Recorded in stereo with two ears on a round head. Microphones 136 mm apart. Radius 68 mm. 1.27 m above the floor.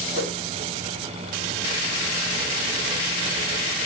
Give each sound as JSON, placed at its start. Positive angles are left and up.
{"t": 0.1, "sound": "a whoosh", "side_deg": -75, "distance_m": 2.0}